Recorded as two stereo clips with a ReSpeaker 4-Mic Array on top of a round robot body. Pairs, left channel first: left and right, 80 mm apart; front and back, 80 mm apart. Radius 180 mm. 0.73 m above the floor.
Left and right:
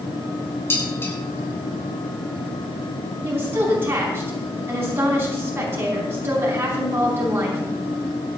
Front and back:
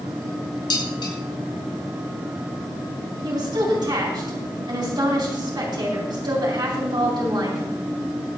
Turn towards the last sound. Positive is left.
turn(degrees=-150)